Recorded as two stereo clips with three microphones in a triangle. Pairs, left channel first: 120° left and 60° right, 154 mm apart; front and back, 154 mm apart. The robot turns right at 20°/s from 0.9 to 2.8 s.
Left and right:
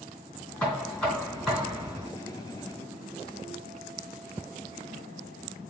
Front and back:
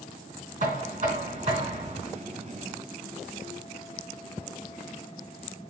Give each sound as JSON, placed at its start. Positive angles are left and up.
{"t": 0.6, "sound": "knocking", "azimuth_deg": -160, "distance_m": 3.0}